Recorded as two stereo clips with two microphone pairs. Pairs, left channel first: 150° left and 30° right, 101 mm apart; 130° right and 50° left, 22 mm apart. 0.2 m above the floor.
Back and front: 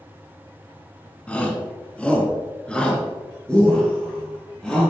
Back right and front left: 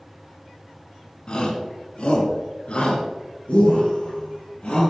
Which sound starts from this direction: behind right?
A shout, at 1.3 s.